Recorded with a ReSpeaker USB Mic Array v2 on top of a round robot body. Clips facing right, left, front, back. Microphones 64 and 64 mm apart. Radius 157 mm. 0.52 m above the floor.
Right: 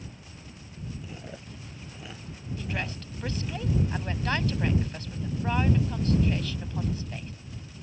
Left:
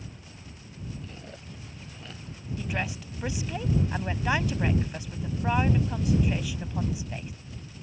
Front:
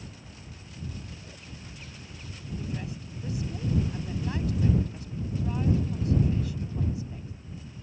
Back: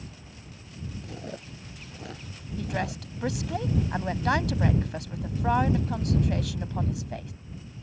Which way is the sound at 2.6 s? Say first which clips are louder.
Left 2 dB, back 8 dB; 170° left.